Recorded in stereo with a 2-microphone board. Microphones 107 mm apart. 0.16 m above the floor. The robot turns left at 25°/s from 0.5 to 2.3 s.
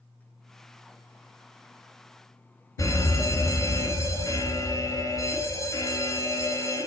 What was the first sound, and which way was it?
A fire alarm, 30° left (ahead or behind).